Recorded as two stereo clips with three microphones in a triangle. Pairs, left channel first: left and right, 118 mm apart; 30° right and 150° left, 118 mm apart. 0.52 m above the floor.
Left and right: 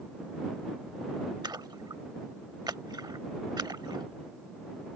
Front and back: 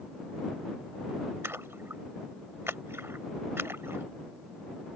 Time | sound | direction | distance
1.4 | a splash | 140° right | ?